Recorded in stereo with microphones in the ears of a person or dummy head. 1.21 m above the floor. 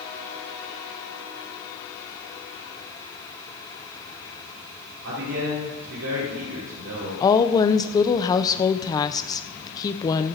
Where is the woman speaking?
20° left (ahead or behind), 0.5 m.